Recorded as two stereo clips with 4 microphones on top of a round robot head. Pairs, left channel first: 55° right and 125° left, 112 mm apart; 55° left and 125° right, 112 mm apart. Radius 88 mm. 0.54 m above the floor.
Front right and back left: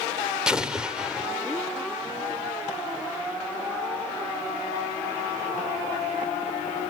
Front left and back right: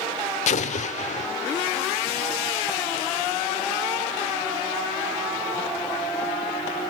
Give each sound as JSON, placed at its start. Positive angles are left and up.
{"t": 0.5, "sound": "an explosion", "azimuth_deg": 40, "distance_m": 0.9}